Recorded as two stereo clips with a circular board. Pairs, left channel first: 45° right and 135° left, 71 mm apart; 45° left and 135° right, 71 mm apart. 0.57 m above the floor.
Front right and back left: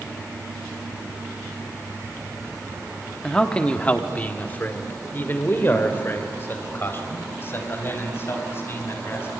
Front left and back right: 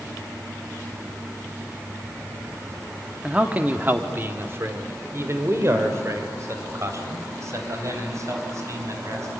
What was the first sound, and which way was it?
A man speaking, 105° right.